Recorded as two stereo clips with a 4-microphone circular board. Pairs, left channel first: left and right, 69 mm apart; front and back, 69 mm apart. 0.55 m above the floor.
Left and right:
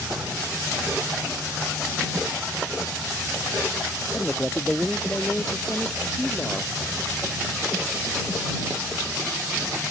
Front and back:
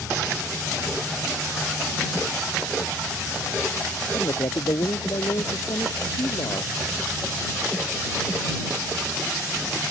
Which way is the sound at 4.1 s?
20° left.